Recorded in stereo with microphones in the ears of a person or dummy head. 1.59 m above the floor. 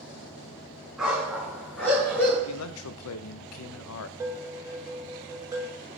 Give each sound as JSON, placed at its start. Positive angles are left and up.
{"t": 1.0, "sound": "a dog barking", "side_deg": -5, "distance_m": 4.5}
{"t": 2.5, "sound": "a man speaking", "side_deg": 80, "distance_m": 0.7}
{"t": 4.2, "sound": "dishes clattering", "side_deg": -15, "distance_m": 1.4}